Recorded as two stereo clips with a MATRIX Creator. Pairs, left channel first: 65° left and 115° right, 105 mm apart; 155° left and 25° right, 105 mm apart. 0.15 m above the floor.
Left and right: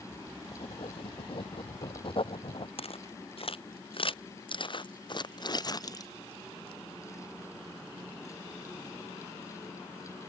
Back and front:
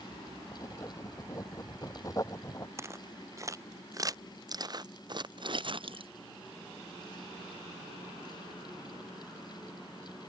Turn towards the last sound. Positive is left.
turn(degrees=10)